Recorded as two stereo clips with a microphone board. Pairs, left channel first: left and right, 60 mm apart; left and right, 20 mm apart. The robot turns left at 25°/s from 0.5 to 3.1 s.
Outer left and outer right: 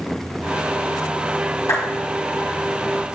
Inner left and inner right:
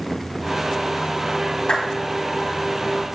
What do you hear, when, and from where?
1.7 s a clap: 60° left (ahead or behind), 6 m